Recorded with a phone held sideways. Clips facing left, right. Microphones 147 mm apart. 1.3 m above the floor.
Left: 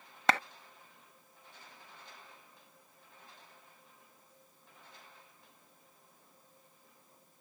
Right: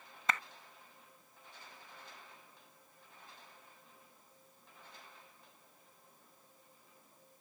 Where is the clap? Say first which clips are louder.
Left 8 dB; 85° left.